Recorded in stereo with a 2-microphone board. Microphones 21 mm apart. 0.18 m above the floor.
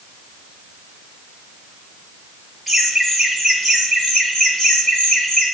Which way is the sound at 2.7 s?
10° left (ahead or behind).